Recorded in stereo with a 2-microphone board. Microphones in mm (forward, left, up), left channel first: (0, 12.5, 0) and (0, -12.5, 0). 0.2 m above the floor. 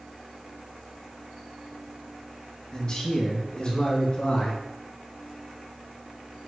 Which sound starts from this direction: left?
A man speaking, at 2.7 s.